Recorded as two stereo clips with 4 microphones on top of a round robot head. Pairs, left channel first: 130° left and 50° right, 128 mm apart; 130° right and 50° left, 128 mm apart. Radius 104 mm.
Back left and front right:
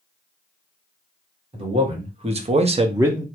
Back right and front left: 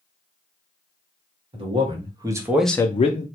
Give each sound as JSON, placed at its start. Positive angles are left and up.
{"t": 1.5, "sound": "a man speaking", "azimuth_deg": 0, "distance_m": 1.7}